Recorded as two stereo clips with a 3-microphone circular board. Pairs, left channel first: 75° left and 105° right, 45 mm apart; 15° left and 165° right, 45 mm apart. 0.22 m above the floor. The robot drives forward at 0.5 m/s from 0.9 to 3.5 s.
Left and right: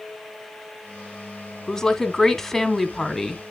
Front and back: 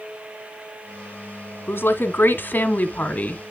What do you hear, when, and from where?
1.7 s a woman speaking: 5° right, 1.7 m; by 3.4 s 10° right, 1.1 m